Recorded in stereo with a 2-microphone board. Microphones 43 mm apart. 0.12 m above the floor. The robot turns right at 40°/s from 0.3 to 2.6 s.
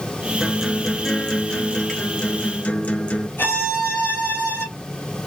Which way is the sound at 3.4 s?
65° left (ahead or behind).